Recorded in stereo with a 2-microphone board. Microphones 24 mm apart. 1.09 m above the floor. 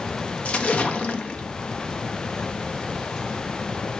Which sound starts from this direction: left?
A splash, at 0.5 s.